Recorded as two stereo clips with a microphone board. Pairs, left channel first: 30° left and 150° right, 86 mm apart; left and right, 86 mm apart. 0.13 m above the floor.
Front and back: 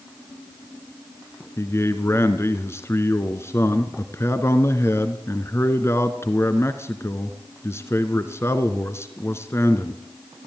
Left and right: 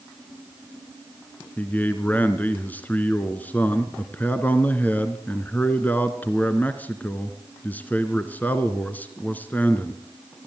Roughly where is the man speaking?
Ahead left.